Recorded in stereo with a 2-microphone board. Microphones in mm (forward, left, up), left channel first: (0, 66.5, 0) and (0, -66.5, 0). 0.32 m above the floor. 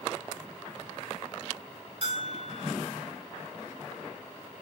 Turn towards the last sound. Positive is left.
turn(degrees=-50)  # may be behind; listen again after turning